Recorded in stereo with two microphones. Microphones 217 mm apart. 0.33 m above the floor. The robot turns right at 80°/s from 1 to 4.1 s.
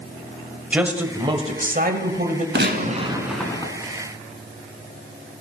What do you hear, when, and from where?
0.7 s a man speaking: 170° right, 1.2 m; by 2.5 s 55° right, 1.2 m
2.5 s a gunshot: 65° right, 1.2 m; by 3.7 s 30° left, 1.2 m